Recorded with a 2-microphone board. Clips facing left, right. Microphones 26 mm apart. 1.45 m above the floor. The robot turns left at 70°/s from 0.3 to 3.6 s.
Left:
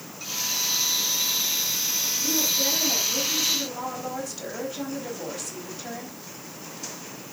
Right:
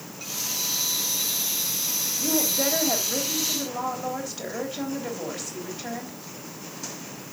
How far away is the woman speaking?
About 3.5 m.